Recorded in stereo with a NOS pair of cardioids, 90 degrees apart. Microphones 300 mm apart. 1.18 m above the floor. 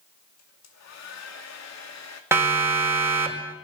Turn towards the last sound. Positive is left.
turn(degrees=-10)